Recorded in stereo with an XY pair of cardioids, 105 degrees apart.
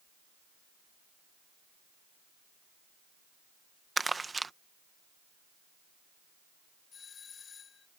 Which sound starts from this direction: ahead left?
A doorbell, at 6.9 s.